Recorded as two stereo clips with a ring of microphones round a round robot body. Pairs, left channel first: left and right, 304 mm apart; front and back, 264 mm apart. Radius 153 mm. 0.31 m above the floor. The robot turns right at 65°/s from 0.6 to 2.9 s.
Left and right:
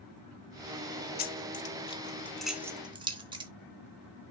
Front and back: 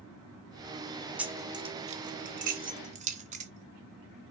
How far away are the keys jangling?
About 0.6 m.